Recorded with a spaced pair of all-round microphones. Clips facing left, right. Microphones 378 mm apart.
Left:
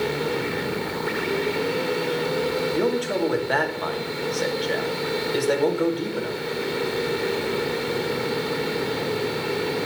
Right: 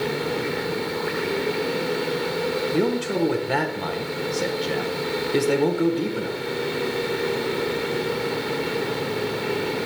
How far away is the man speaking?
About 0.8 m.